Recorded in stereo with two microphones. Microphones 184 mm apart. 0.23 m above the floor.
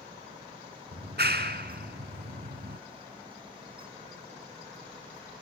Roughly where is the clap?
Right.